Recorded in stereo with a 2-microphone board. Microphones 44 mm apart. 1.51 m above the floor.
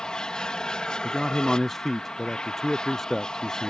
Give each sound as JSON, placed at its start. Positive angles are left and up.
{"t": 0.0, "sound": "an aircraft", "side_deg": 15}
{"t": 1.0, "sound": "a man speaking", "side_deg": 5}